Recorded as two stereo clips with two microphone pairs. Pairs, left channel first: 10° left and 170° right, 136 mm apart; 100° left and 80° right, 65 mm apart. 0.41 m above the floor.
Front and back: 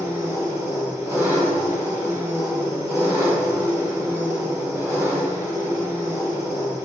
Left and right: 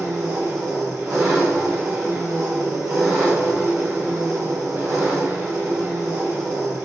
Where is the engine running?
110° right, 2 m.